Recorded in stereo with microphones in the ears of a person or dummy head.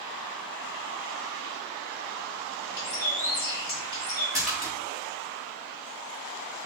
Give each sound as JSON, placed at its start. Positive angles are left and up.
{"t": 2.8, "sound": "a bird", "side_deg": 20, "distance_m": 1.9}
{"t": 4.3, "sound": "a splash", "side_deg": 0, "distance_m": 1.3}